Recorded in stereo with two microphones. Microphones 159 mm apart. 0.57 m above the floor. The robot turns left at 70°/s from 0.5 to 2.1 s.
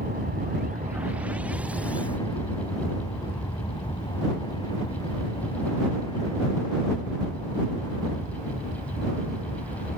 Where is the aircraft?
70° right (ahead or behind); by 10.0 s 30° left (ahead or behind).